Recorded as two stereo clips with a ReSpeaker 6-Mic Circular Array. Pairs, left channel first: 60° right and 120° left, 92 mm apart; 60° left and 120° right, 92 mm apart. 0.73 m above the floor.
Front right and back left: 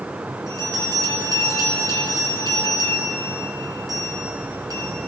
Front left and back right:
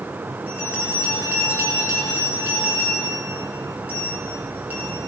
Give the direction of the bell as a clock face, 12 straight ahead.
6 o'clock.